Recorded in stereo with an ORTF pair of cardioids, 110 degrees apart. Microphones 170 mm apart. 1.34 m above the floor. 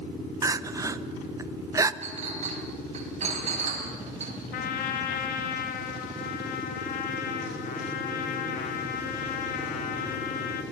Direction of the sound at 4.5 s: 60° left.